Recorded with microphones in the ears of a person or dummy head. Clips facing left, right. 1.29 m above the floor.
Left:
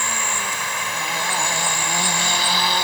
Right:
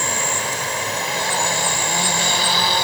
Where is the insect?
35° right (ahead or behind).